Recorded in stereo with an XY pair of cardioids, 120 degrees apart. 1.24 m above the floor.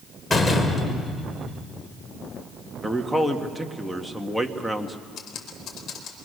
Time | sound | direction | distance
0.3 | a door slam | 25° left | 3 m
2.8 | a man speaking | straight ahead | 1.9 m
5.2 | typing on a keyboard | 65° left | 4.5 m